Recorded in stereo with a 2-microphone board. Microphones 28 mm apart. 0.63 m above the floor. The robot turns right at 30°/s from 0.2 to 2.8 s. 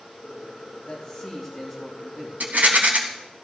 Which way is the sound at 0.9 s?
150° left.